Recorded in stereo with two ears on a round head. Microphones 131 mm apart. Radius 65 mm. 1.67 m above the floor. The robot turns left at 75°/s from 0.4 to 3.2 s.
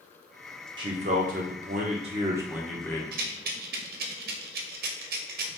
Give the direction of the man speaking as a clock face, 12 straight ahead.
1 o'clock.